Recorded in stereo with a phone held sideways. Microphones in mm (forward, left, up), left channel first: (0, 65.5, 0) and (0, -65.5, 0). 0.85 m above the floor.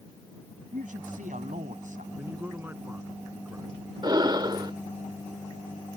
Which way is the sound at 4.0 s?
35° right (ahead or behind).